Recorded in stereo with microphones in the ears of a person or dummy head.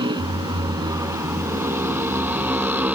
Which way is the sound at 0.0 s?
30° right (ahead or behind).